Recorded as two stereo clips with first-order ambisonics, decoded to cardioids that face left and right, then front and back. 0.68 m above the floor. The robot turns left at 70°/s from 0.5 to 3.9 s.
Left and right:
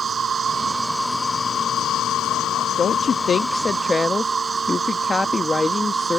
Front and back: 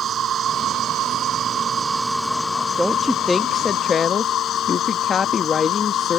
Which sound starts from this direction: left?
A woman speaking, at 2.8 s.